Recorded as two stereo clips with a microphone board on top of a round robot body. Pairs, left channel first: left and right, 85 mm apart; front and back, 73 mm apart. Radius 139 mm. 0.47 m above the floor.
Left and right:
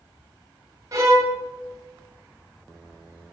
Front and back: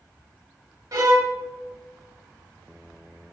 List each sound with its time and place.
0.9 s a violin: 145° right, 1.0 m